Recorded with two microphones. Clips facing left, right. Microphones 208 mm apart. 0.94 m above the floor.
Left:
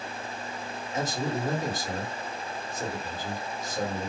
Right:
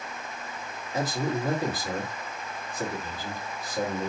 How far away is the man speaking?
About 1.7 m.